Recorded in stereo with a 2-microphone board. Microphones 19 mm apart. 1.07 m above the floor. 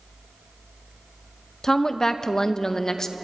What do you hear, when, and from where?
1.6 s a woman speaking: 35° left (ahead or behind), 0.7 m